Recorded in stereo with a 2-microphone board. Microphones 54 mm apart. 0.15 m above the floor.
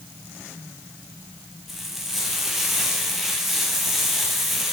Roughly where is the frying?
Centre.